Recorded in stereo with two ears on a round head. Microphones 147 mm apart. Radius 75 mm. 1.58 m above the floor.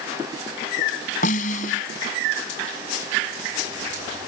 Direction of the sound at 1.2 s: 50° left (ahead or behind).